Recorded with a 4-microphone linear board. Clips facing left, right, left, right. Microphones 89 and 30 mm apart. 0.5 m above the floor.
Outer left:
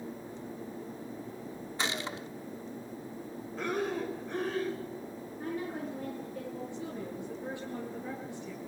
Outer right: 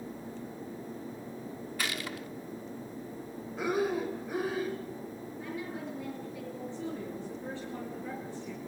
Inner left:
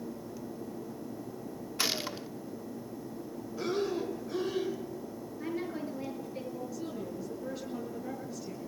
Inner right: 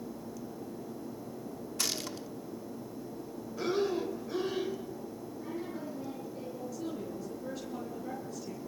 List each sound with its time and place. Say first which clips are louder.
1.8 s a gunshot: outer left 2 dB, inner left 4 dB; 25° left (ahead or behind), 0.7 m
3.6 s breathing: outer right 3 dB, inner right 1 dB; 10° right (ahead or behind), 2.5 m
5.4 s a woman speaking: outer left 3 dB, inner left 4 dB; 40° left (ahead or behind), 9.5 m
6.7 s a woman speaking: outer right 1 dB, even; 15° left (ahead or behind), 9.5 m